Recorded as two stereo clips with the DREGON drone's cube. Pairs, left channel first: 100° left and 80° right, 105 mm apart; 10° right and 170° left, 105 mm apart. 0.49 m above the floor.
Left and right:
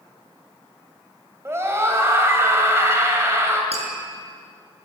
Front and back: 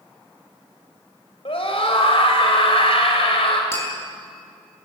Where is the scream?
15° right, 2.5 m.